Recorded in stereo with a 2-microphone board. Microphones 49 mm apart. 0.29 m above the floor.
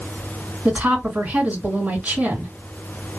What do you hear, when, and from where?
0.7 s a woman speaking: 30° right (ahead or behind), 2 m